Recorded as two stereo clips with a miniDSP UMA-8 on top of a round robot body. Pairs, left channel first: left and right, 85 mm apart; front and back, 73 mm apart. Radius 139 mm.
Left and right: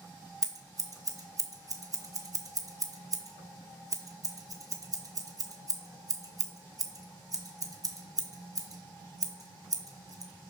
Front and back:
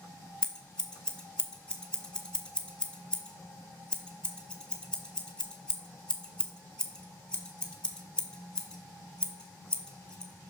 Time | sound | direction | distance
0.4 | scissors | 75° right | 1.2 m